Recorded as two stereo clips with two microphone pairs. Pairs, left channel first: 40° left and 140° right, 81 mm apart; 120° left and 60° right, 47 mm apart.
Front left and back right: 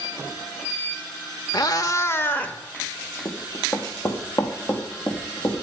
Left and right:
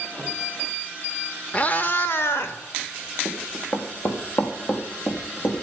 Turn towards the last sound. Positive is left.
turn(degrees=90)